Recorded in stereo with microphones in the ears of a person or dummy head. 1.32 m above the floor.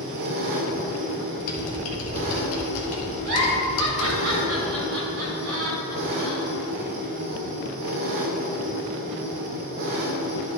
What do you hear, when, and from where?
0.0 s an engine running: 55° right (ahead or behind), 1.1 m
1.4 s typing on a keyboard: 85° left, 1.8 m
3.2 s a giggle: 75° right (ahead or behind), 3 m